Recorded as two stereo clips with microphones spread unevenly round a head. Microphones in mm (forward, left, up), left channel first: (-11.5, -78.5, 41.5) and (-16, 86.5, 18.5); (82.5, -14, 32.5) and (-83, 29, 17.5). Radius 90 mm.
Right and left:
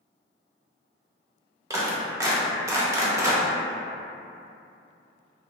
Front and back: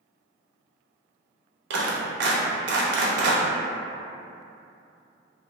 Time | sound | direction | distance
1.7 | a clap | 160° left | 0.7 m